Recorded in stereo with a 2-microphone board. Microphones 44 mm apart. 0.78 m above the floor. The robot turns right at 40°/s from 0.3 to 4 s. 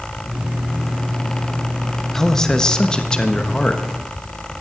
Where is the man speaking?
10° left (ahead or behind), 1.0 m; by 3.8 s 20° left (ahead or behind), 1.0 m.